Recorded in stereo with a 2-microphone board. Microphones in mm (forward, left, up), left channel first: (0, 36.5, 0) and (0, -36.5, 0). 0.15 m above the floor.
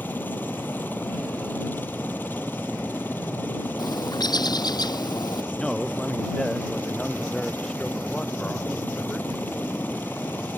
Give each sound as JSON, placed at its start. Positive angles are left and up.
{"t": 0.0, "sound": "a helicopter", "side_deg": 25}
{"t": 3.8, "sound": "a bird", "side_deg": 70}
{"t": 5.5, "sound": "a man speaking", "side_deg": 10}